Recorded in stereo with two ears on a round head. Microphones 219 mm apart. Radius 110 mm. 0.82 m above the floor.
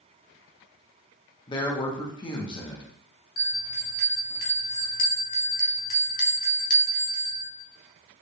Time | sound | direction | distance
1.5 | a man speaking | 20° left (ahead or behind) | 0.8 m
3.4 | a bell | 35° left (ahead or behind) | 1.0 m